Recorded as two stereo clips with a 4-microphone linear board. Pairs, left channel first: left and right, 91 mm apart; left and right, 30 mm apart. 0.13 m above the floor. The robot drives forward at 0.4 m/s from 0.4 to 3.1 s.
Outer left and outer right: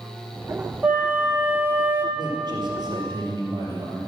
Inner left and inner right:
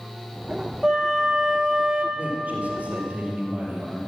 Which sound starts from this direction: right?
A man speaking, at 2.1 s.